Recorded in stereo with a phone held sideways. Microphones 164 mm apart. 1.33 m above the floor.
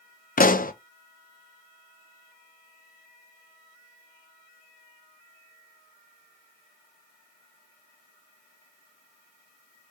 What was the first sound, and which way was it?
A pop, 60° left (ahead or behind).